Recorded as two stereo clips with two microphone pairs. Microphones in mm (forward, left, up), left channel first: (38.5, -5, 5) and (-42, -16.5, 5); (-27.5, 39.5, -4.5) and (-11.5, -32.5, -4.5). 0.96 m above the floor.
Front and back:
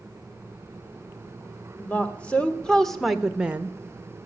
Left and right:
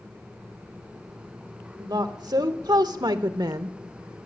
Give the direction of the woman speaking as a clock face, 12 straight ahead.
2 o'clock.